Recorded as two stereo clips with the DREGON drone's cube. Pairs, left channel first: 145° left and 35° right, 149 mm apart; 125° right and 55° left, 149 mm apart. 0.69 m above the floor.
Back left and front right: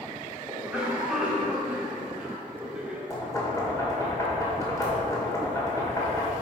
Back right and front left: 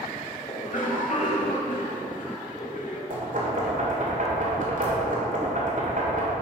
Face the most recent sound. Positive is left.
turn(degrees=80)